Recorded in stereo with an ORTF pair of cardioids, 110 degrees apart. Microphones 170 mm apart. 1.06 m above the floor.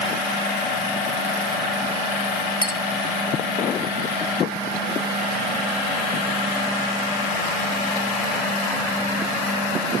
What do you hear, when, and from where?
2.6 s a clink: 30° left